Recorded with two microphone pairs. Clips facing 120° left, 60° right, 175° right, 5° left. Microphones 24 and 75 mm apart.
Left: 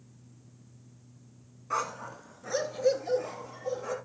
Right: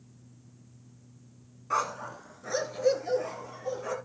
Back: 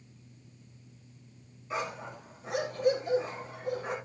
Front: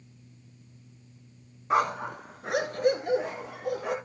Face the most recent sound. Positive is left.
turn(degrees=30)